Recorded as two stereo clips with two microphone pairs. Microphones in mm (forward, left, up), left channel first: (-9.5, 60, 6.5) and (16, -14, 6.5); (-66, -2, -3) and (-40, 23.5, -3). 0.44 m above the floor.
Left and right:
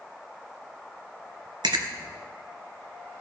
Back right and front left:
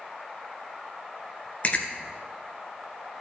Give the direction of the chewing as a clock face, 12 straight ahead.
3 o'clock.